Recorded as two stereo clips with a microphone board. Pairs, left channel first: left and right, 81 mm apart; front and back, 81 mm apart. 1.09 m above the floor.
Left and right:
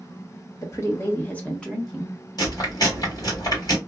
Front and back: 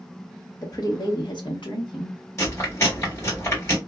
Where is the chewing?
50° left, 1.6 m.